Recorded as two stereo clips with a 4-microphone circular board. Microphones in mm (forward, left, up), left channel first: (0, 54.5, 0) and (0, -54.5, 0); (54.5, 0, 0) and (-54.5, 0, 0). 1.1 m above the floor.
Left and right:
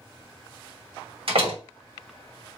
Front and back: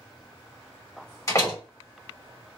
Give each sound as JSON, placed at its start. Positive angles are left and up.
{"t": 1.3, "sound": "a door slam", "azimuth_deg": -60, "distance_m": 1.3}